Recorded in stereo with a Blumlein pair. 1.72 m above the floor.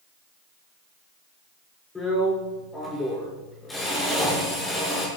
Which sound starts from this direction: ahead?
A drill, at 1.9 s.